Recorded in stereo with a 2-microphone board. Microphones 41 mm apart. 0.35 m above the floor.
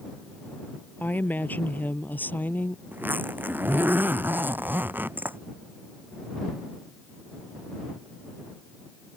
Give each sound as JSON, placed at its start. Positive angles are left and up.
{"t": 1.0, "sound": "a woman speaking", "side_deg": 45}
{"t": 2.9, "sound": "a zipper", "side_deg": -50}